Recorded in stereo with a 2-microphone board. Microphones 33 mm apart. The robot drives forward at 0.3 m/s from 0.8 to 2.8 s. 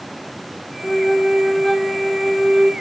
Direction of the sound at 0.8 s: 20° left (ahead or behind).